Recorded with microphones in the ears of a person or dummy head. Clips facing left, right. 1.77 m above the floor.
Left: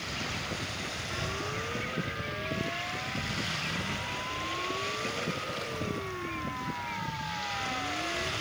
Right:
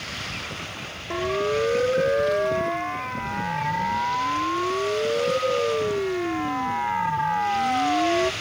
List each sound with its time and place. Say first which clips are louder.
1.1 s a siren: right 16 dB; 80° right; by 8.3 s 85° right